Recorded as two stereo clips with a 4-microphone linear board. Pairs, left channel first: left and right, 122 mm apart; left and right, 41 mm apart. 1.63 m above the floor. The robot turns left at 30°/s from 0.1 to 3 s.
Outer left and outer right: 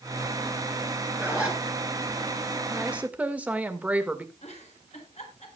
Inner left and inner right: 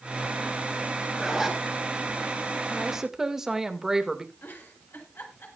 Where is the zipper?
15° right (ahead or behind), 4 m; by 1.6 s centre (ahead or behind), 4 m.